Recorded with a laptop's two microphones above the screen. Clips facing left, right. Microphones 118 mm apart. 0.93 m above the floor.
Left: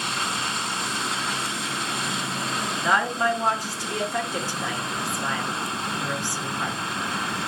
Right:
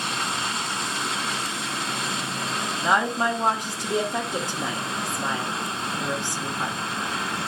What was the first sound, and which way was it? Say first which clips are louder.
A woman speaking: even; 20° right (ahead or behind).